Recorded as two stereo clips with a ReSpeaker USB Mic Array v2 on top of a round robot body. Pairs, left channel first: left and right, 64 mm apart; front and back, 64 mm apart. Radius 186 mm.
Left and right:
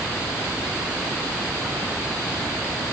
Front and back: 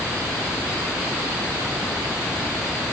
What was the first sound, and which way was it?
Only background noise.